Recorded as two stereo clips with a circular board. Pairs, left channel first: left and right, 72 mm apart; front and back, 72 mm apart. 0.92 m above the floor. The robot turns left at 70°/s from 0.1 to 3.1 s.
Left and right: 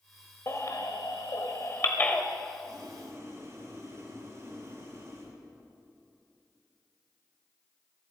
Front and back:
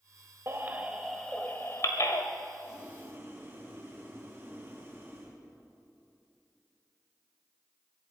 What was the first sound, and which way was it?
A baby crying, 135° left.